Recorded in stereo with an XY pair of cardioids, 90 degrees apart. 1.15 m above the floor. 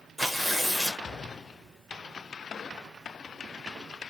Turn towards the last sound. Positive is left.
turn(degrees=0)